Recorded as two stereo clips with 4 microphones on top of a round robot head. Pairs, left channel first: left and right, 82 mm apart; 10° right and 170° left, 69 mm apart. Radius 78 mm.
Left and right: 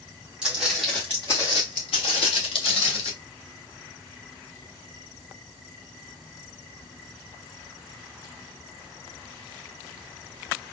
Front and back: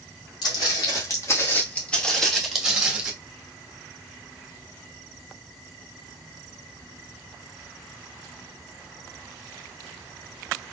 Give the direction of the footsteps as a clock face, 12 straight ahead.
12 o'clock.